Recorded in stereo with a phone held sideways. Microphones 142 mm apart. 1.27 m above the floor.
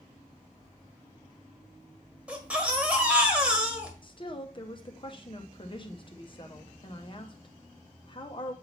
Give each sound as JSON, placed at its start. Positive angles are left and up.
{"t": 2.3, "sound": "a baby crying", "side_deg": -10, "distance_m": 1.5}
{"t": 4.0, "sound": "a woman speaking", "side_deg": 35, "distance_m": 1.1}